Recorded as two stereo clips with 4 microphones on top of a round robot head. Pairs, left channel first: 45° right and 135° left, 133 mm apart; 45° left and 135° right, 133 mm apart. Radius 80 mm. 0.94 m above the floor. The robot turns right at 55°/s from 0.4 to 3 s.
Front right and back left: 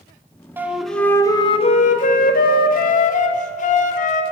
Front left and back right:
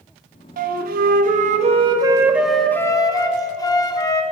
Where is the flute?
150° right, 1.2 m; by 4.2 s 15° right, 1.2 m.